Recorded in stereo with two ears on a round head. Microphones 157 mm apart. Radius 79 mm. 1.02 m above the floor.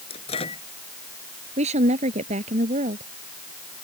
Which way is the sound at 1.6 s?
40° right (ahead or behind).